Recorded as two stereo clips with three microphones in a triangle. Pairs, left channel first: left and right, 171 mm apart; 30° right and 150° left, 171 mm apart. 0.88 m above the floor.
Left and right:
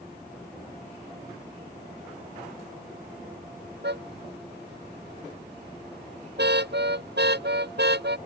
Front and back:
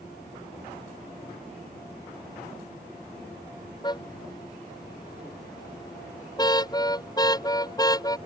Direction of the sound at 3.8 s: 95° right.